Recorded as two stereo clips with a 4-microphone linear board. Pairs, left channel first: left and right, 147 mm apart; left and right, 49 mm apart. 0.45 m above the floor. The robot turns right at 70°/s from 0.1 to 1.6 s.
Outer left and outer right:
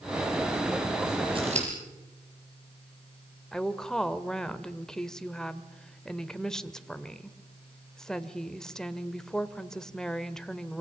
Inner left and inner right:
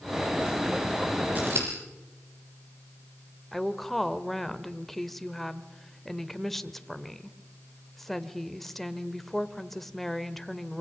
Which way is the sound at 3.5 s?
5° left (ahead or behind).